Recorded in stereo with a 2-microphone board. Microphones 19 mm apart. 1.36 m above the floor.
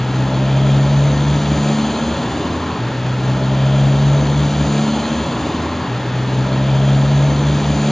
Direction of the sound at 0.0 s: 10° left (ahead or behind).